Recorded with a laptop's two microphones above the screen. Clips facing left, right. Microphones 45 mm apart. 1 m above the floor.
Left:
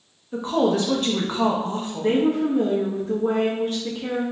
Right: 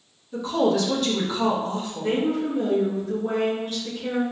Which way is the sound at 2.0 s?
70° left (ahead or behind).